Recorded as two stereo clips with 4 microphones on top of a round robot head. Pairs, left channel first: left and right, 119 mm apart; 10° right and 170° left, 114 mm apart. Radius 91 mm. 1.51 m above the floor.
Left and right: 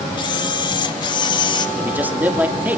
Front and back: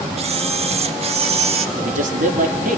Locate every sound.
0.2 s a camera shutter: 140° left, 1.7 m
1.8 s a man speaking: 165° right, 3 m